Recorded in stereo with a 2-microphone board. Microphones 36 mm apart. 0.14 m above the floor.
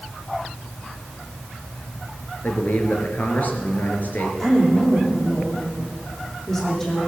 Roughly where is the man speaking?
Left.